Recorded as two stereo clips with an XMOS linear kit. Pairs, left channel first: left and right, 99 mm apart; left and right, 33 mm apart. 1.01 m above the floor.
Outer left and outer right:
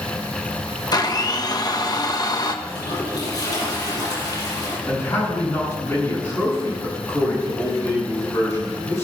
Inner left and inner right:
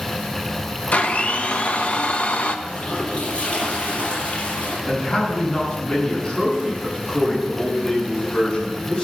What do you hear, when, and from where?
0.9 s a blender: 40° left (ahead or behind), 1.2 m
2.6 s a toilet flushing: 40° left (ahead or behind), 7.5 m
4.9 s a man speaking: 25° left (ahead or behind), 9.5 m